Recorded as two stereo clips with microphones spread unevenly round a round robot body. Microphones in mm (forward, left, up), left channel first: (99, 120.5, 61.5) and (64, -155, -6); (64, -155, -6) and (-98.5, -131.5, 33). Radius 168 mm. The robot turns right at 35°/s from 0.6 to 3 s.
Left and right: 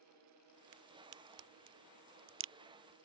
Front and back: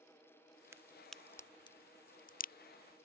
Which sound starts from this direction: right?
A crack, at 0.7 s.